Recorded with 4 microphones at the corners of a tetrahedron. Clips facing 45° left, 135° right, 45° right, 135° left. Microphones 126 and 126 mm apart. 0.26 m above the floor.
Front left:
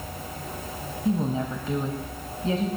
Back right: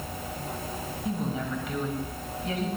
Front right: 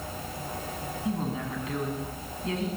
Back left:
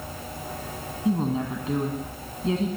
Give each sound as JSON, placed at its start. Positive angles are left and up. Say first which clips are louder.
{"t": 1.1, "sound": "a woman speaking", "louder": "front left 6 dB, back left 7 dB", "azimuth_deg": 85, "distance_m": 1.7}